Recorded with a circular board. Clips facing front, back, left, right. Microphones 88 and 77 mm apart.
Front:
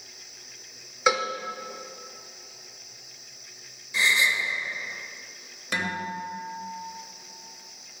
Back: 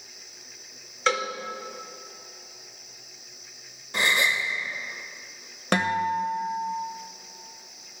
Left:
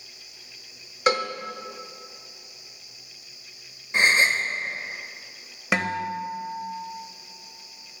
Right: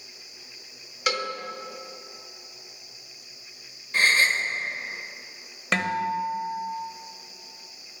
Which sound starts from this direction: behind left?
A gasp, at 3.9 s.